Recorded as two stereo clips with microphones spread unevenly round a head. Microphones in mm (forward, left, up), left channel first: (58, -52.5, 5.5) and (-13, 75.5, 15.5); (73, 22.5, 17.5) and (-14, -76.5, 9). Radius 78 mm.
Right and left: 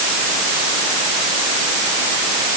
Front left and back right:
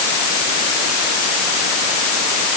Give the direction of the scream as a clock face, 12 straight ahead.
I don't hear a scream.